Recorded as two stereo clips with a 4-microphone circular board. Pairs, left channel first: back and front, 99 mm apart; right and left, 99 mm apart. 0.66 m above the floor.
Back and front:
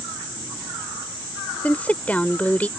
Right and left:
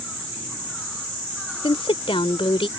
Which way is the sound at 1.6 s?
105° right.